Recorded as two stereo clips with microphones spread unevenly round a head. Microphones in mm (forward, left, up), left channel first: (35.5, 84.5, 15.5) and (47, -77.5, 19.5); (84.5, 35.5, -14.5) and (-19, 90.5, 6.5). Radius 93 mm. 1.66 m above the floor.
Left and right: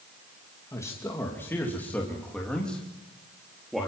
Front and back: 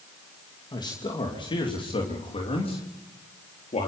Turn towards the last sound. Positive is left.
turn(degrees=5)